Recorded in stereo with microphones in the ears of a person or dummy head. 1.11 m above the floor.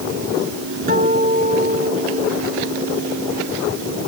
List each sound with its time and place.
0.9 s a guitar: 55° right (ahead or behind), 2.5 m